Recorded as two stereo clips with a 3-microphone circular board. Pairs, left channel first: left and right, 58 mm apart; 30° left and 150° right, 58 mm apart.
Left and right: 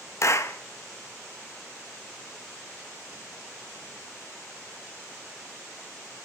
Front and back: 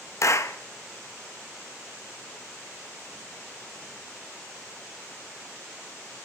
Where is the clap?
60° left, 0.7 m.